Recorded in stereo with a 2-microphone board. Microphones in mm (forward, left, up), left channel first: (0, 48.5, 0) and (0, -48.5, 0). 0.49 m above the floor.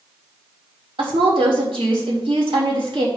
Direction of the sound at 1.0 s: 70° right (ahead or behind).